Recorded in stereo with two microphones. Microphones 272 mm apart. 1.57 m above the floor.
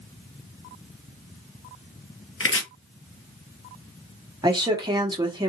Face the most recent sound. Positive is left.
turn(degrees=-15)  # may be behind; listen again after turning